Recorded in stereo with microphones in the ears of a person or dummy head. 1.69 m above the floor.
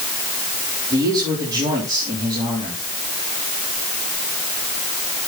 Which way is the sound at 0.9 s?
25° right (ahead or behind).